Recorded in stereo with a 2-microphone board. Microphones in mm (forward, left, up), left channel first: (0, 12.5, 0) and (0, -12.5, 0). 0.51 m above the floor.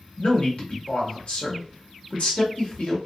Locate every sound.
0.2 s a man speaking: 60° left (ahead or behind), 1.5 m